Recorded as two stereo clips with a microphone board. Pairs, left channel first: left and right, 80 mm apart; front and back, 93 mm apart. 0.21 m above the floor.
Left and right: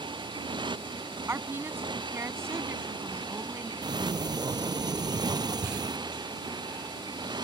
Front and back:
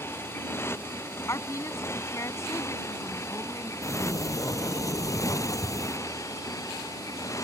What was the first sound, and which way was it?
A motorcycle, 65° right.